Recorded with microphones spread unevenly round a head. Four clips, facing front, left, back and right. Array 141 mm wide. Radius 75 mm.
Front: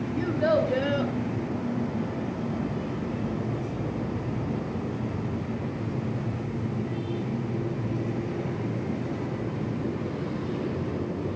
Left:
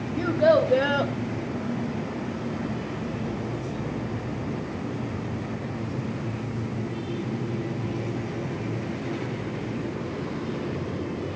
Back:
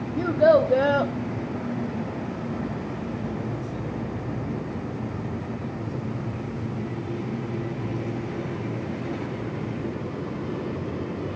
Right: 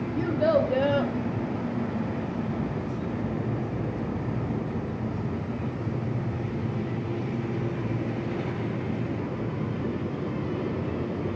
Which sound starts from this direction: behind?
A child speaking, at 0.2 s.